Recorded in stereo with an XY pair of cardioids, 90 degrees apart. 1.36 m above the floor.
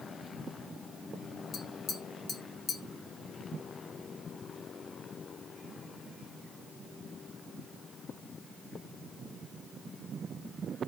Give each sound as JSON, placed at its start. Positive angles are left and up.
{"t": 1.5, "sound": "tapping", "azimuth_deg": 60, "distance_m": 0.7}